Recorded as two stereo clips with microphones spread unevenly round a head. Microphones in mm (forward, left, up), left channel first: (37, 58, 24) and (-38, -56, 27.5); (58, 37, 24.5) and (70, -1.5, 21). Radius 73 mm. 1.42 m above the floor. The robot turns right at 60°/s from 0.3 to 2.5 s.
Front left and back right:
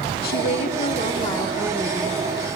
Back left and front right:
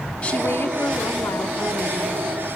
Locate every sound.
0.2 s a woman speaking: 45° left, 1.2 m; by 2.2 s 165° left, 1.2 m